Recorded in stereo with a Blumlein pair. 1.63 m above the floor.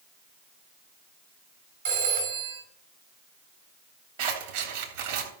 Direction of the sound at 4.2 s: 55° right.